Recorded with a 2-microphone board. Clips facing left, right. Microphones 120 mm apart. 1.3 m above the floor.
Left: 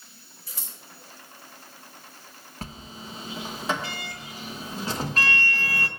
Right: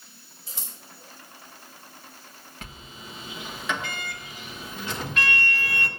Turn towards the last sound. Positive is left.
turn(degrees=35)  # may be behind; listen again after turning